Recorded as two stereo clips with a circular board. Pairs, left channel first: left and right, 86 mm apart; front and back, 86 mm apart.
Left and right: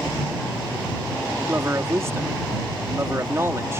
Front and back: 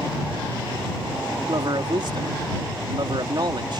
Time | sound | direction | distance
1.5 | a man speaking | 150° right | ?